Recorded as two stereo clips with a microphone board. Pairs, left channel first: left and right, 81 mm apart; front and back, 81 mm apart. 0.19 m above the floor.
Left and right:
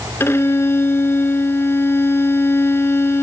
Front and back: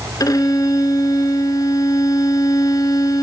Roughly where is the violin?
Ahead left.